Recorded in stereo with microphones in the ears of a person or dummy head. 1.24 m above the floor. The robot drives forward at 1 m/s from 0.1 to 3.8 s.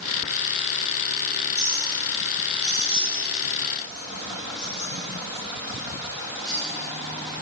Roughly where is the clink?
Left.